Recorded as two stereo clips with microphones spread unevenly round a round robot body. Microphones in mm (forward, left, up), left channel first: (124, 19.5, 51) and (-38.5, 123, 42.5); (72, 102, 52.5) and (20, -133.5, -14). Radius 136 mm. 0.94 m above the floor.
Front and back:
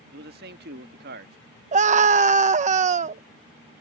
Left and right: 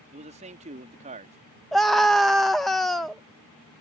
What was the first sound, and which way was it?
A man speaking, 165° right.